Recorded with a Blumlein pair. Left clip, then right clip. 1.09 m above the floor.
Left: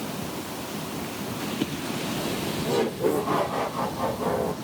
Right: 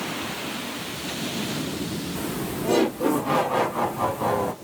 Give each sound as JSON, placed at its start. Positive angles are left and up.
{"t": 2.1, "sound": "laughter", "azimuth_deg": -65, "distance_m": 3.0}